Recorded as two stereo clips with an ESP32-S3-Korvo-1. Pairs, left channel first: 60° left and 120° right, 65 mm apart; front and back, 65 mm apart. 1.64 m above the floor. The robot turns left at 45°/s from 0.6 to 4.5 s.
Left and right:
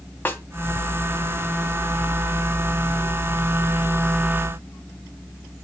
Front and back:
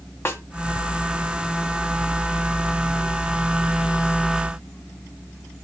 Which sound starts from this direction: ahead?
A snare drum, at 0.2 s.